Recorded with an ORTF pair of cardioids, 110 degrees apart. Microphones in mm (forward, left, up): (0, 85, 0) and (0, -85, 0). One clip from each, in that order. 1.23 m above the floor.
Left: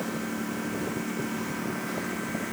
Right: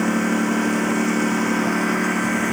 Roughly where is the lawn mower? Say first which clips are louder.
Right 12 dB; right.